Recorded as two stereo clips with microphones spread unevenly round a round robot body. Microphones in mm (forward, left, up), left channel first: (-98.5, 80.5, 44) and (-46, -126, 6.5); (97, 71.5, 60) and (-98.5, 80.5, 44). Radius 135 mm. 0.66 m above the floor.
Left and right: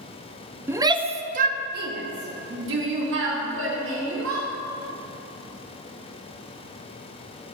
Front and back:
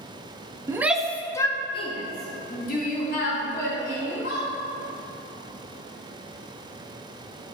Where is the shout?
130° right, 0.6 m; by 4.5 s 50° right, 2 m.